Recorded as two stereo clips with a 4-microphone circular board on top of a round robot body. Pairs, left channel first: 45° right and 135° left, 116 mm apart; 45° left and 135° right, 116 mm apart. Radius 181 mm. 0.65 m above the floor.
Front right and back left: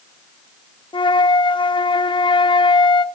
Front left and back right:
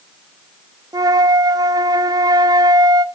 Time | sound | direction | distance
0.9 | a flute | 85° right | 1.0 m